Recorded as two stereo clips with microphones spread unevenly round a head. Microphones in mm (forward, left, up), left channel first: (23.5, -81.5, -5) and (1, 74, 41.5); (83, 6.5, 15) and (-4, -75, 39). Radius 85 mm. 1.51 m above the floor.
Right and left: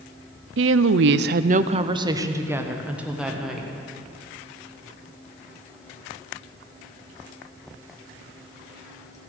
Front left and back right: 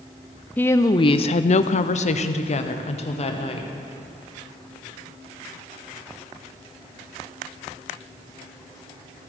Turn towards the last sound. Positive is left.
turn(degrees=10)